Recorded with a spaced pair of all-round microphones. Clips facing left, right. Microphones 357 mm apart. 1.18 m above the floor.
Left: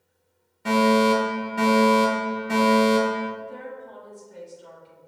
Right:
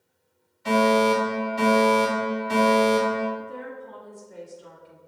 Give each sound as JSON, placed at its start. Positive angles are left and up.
{"t": 0.7, "sound": "a fire alarm", "side_deg": 65, "distance_m": 2.5}
{"t": 3.4, "sound": "a woman speaking", "side_deg": -65, "distance_m": 2.5}